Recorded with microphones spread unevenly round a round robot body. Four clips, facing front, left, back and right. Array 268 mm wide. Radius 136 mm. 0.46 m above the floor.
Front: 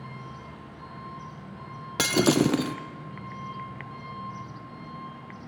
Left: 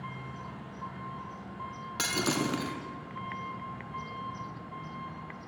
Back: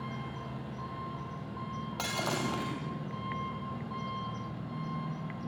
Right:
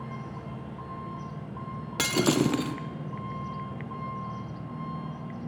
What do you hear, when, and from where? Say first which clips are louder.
0.0 s an engine running: right 3 dB, back 1 dB; 110° right, 5.5 m
2.0 s breaking glass: right 7 dB, front 13 dB; 25° right, 2 m